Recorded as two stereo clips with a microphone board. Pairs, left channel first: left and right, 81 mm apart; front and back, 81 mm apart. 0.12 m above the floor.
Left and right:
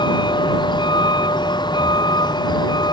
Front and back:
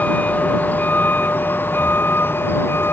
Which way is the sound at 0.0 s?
70° left.